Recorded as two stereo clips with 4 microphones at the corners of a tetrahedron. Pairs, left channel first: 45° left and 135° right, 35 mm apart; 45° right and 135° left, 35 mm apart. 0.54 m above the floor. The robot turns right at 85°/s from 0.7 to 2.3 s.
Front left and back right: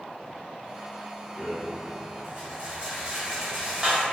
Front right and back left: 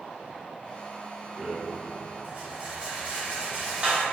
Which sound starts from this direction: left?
A rattle, at 1.4 s.